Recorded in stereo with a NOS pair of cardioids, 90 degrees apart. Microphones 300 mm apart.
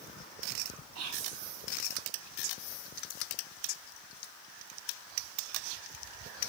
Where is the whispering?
60° right, 0.6 m.